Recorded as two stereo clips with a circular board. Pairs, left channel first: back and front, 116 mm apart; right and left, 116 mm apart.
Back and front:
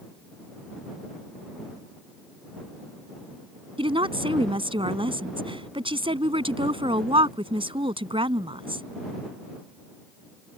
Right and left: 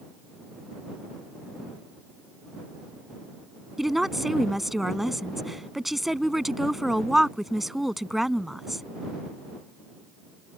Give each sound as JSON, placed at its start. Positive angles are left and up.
{"t": 3.8, "sound": "a woman speaking", "azimuth_deg": 0}